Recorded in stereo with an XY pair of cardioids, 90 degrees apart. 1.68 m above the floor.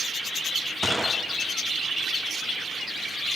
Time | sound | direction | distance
0.8 | a gunshot | straight ahead | 0.5 m